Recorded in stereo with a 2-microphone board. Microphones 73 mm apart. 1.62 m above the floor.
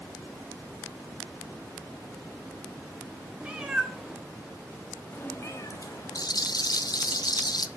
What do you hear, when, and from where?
3.4 s a cat meowing: 15° right (ahead or behind), 1.5 m; by 6.2 s 55° left (ahead or behind), 1.7 m
6.2 s a rattle: 65° left (ahead or behind), 0.5 m